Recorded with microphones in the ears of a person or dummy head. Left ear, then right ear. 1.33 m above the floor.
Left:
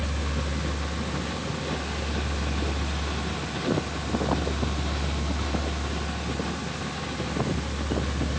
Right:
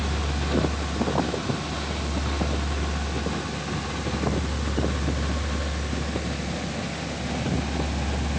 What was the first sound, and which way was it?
Only background noise.